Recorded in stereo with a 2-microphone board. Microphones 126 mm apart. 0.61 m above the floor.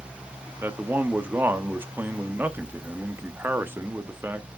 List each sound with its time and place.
0.6 s a man speaking: 15° right (ahead or behind), 0.6 m